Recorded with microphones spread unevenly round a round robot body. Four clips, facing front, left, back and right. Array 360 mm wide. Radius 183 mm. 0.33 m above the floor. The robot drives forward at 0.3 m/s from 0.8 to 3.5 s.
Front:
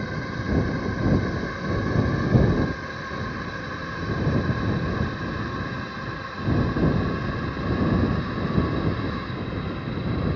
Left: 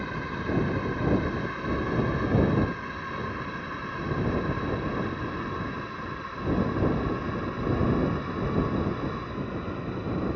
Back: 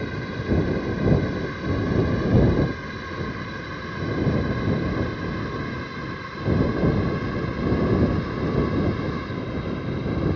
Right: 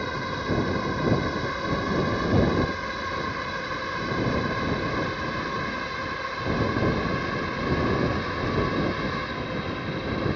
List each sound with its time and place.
0.0 s a drone: 85° right; by 10.4 s 100° right